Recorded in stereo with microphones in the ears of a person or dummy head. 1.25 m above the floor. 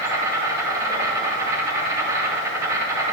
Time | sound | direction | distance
0.0 | an insect | 15° right (ahead or behind) | 3 m